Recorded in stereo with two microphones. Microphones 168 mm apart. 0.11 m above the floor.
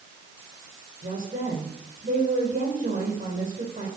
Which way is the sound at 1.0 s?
50° right (ahead or behind).